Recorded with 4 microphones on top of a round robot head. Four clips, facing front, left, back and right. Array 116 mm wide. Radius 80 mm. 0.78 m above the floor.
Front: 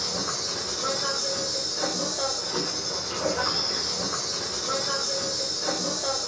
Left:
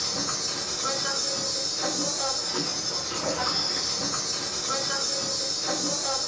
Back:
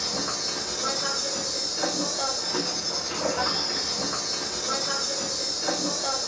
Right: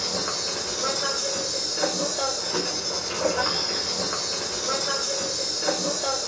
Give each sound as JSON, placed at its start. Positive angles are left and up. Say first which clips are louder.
{"t": 0.0, "sound": "an insect", "louder": "right 3 dB, even", "azimuth_deg": -80, "distance_m": 1.8}